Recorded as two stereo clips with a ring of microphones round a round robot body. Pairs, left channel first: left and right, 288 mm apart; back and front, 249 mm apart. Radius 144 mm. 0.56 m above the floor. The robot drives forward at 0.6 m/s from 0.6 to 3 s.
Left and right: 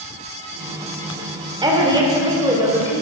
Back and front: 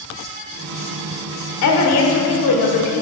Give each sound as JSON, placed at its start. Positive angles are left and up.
{"t": 1.6, "sound": "a woman speaking", "azimuth_deg": -165, "distance_m": 1.6}